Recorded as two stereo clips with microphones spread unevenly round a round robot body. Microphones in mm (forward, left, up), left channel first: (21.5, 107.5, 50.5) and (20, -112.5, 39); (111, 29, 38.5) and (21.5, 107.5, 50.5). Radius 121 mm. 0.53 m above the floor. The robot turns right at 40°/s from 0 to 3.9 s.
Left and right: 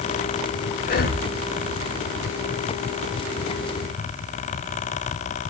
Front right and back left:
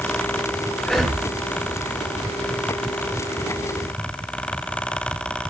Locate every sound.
0.8 s breathing: 40° left, 1.0 m; by 1.2 s 55° left, 1.0 m